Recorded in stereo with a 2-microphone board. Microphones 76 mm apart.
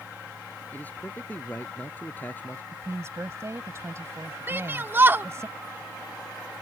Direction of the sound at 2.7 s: 35° right (ahead or behind).